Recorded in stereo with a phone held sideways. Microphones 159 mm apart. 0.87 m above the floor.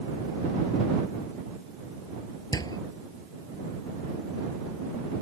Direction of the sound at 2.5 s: 25° left (ahead or behind).